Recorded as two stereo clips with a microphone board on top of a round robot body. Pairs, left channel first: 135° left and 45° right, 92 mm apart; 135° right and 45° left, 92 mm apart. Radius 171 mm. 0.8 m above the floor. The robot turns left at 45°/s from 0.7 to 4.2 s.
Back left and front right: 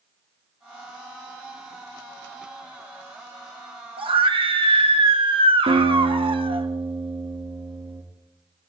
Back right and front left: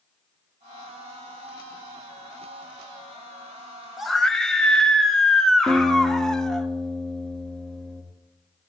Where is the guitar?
50° right, 4 m.